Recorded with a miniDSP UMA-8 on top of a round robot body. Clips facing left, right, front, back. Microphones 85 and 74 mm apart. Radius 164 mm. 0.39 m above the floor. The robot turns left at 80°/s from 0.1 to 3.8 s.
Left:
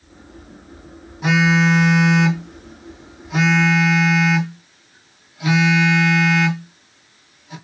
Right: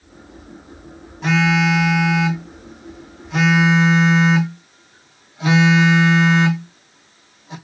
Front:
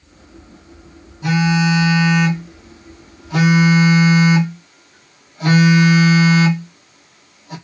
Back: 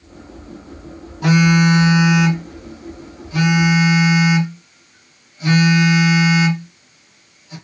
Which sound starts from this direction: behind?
A phone buzzing, at 1.2 s.